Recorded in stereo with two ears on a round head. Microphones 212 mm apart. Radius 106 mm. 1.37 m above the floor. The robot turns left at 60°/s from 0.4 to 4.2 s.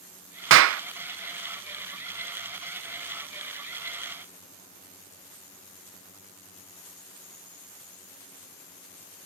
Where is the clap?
50° right (ahead or behind); by 0.8 s 65° right (ahead or behind).